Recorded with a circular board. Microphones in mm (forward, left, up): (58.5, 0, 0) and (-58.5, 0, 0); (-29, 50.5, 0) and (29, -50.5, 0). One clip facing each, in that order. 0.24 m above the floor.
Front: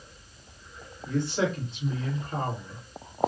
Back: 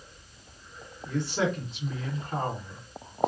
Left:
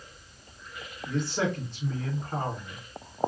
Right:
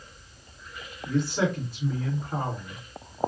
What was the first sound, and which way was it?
A man speaking, 140° right.